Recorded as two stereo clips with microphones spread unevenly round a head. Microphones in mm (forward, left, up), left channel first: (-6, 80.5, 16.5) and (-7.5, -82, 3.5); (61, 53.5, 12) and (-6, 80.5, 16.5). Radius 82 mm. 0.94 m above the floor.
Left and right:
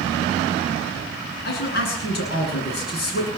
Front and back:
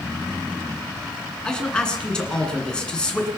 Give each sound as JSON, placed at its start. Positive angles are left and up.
{"t": 1.4, "sound": "a man speaking", "azimuth_deg": 55, "distance_m": 9.0}